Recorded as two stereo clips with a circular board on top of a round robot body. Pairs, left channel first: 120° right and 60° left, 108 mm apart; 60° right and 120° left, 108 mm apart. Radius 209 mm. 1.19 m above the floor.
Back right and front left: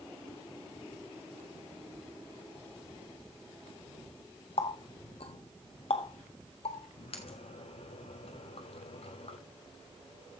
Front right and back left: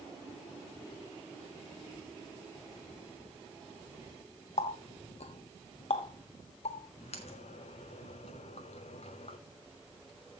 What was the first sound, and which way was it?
A running tap, 85° right.